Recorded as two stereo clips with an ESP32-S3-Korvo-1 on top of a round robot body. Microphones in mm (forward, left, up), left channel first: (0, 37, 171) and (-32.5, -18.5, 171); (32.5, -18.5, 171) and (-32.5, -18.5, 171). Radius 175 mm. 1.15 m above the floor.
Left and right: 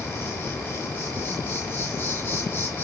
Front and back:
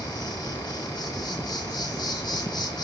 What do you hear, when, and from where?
0.0 s an insect: 5° right, 1.3 m